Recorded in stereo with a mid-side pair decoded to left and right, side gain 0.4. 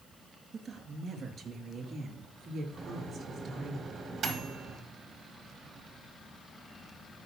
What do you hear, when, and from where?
0.5 s a woman speaking: 60° right, 1.7 m; by 3.8 s 70° right, 4 m
2.8 s a microwave: 65° right, 1.4 m